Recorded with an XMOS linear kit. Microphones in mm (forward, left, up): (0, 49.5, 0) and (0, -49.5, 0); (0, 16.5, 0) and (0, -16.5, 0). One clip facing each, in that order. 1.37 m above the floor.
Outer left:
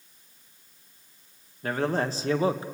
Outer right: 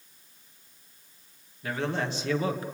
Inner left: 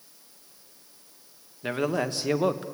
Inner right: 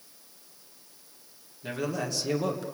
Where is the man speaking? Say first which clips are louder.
Outer left 4 dB, inner left 5 dB; 45° left (ahead or behind), 1.4 m; by 2.6 s 25° left (ahead or behind), 1.0 m.